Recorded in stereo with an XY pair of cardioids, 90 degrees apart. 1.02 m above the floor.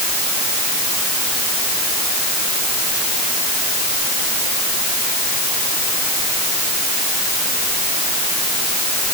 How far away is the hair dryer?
No hair dryer in this recording.